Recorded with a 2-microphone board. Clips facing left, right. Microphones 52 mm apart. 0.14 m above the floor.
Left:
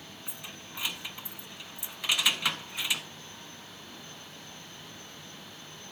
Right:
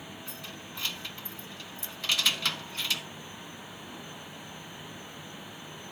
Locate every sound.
0.3 s keys jangling: 15° left (ahead or behind), 0.8 m